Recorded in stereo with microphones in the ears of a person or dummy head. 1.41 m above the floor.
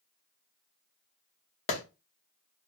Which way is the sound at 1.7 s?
30° left (ahead or behind).